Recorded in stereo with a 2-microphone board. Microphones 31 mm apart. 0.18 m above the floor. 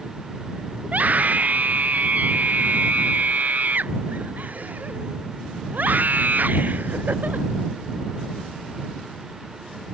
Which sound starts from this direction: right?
A scream, at 0.8 s.